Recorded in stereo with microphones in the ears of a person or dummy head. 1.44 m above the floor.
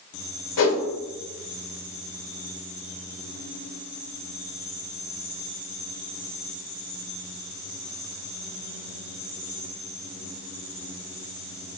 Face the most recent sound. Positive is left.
turn(degrees=75)  # may be behind; listen again after turning